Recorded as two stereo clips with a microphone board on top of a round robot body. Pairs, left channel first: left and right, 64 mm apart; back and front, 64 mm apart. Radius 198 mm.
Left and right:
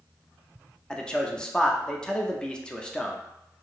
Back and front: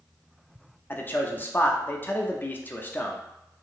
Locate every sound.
0.9 s a man speaking: 155° left, 0.7 m